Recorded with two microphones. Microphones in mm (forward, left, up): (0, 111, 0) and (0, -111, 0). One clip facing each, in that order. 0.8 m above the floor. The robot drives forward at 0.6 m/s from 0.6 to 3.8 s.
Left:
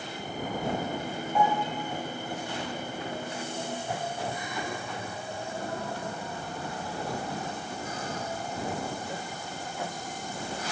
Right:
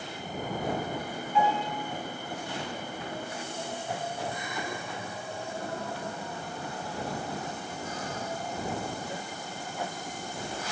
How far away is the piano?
About 3.5 m.